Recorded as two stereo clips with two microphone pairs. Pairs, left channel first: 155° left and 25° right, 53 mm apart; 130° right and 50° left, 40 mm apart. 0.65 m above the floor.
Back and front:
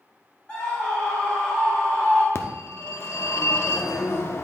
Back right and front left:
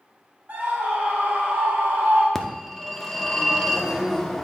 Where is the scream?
85° left, 1.6 m.